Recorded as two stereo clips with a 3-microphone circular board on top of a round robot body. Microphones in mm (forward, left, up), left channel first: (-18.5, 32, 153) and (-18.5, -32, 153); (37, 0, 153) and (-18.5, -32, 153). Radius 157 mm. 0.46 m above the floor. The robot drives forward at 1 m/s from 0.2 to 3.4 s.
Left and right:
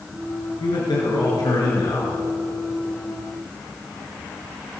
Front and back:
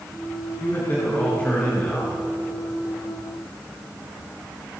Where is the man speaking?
90° left, 8 m; by 2.2 s 100° left, 8 m.